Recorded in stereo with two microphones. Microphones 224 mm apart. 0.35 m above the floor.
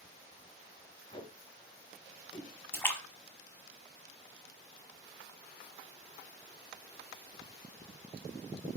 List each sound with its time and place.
1.1 s tape being pulled: 25° left (ahead or behind), 1.1 m
2.7 s a splash: 10° left (ahead or behind), 1.1 m